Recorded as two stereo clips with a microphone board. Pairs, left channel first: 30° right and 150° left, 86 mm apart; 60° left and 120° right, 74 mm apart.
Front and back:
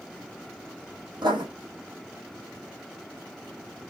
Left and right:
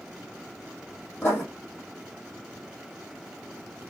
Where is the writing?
120° left, 3 m.